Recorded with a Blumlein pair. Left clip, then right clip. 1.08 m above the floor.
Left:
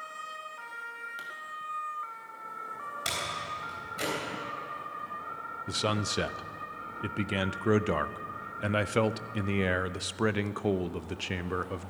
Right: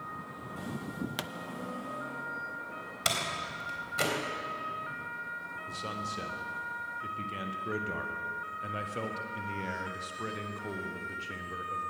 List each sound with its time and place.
1.2 s a pop: 35° right, 0.6 m
3.0 s a door slam: 20° right, 3.5 m
5.7 s a man speaking: 60° left, 0.6 m